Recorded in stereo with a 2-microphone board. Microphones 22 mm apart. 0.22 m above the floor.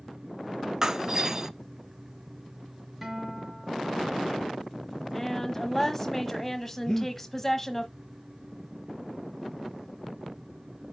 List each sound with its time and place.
0.8 s breaking glass: 25° right (ahead or behind), 0.8 m
3.0 s a guitar: 10° right (ahead or behind), 2 m
5.1 s a woman speaking: 15° left (ahead or behind), 1.3 m
6.9 s breathing: 25° left (ahead or behind), 1.7 m